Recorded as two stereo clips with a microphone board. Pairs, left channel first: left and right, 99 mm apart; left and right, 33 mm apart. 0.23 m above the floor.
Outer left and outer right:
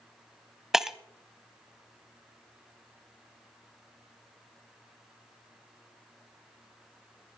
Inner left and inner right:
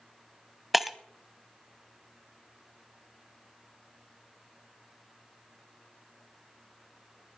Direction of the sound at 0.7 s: 5° right (ahead or behind).